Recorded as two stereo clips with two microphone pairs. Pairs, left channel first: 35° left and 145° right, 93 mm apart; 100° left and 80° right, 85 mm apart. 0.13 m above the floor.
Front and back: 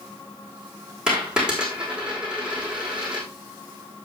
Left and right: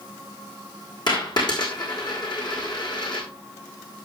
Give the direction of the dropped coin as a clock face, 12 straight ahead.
8 o'clock.